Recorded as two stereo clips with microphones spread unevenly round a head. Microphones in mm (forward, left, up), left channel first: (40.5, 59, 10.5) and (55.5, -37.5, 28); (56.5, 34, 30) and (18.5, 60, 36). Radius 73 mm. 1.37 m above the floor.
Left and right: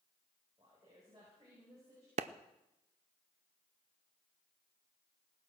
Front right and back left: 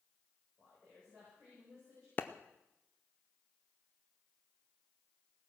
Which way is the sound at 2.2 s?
90° right.